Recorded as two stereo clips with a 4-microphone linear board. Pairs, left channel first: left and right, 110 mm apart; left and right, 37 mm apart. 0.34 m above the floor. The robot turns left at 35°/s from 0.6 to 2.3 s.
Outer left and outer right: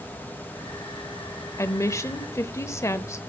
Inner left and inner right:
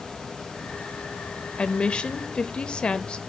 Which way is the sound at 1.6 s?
25° left (ahead or behind).